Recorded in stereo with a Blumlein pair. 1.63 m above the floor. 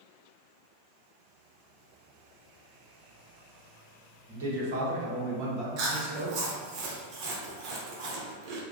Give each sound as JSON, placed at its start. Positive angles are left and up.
{"t": 4.3, "sound": "a man speaking", "azimuth_deg": -60, "distance_m": 1.3}
{"t": 5.8, "sound": "chewing", "azimuth_deg": -40, "distance_m": 0.6}